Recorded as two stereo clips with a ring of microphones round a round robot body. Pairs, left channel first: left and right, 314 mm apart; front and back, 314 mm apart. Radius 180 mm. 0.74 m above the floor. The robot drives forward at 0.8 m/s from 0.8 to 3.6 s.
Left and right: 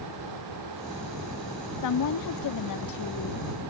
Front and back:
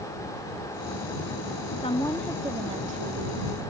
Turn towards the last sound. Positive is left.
turn(degrees=130)